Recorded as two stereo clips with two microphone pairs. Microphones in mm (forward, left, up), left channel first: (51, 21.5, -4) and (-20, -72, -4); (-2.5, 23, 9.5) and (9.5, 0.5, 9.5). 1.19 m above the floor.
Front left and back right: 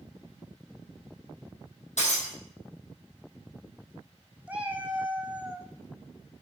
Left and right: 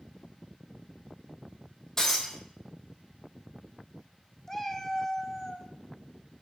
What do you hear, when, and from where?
2.0 s breaking glass: 45° left, 4.5 m
4.5 s a cat meowing: 175° left, 1.0 m